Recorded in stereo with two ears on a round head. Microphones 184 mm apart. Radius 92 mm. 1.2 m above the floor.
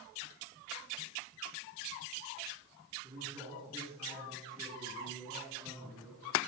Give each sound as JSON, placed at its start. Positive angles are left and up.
{"t": 3.0, "sound": "a man speaking", "side_deg": -30, "distance_m": 9.5}